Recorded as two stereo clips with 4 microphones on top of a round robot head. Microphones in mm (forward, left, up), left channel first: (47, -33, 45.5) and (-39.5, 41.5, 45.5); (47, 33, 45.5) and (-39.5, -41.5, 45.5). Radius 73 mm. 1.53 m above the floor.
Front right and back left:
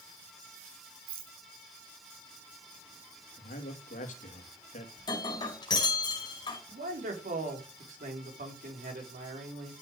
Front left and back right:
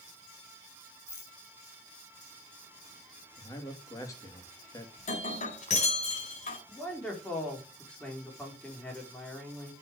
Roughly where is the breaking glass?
Ahead.